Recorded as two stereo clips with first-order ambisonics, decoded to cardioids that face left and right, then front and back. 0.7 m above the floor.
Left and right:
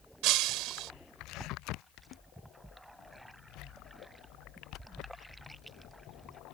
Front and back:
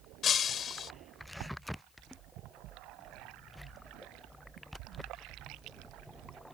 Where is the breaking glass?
60° right.